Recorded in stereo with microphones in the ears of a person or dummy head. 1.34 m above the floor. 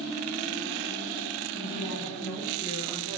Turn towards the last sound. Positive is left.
turn(degrees=10)  # may be behind; listen again after turning